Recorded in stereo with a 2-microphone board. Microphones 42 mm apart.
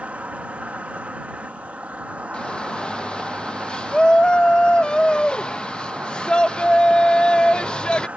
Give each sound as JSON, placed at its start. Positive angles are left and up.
{"t": 0.0, "sound": "an insect", "side_deg": -35}
{"t": 2.3, "sound": "a shout", "side_deg": 25}